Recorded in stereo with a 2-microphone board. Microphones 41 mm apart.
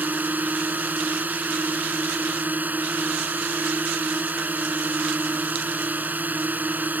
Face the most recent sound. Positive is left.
turn(degrees=-45)  # may be behind; listen again after turning